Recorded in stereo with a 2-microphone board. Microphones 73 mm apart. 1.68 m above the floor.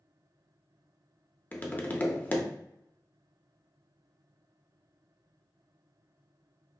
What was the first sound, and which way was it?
Tapping, 25° left (ahead or behind).